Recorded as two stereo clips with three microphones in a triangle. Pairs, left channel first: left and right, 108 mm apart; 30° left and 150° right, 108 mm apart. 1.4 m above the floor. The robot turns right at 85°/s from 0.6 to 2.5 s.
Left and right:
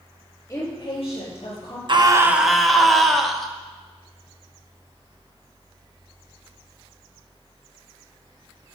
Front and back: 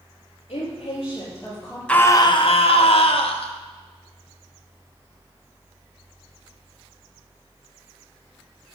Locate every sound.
0.5 s a woman speaking: 30° left, 4 m; by 1.8 s 130° left, 4 m
1.9 s a scream: 50° right, 0.9 m; by 3.5 s straight ahead, 0.9 m